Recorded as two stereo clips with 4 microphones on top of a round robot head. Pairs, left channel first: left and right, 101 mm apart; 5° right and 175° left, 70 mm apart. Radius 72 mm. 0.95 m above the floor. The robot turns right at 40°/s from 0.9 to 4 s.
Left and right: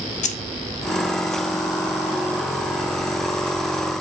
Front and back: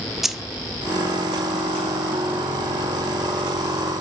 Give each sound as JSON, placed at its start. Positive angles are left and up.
{"t": 0.2, "sound": "keys jangling", "azimuth_deg": 90, "distance_m": 0.5}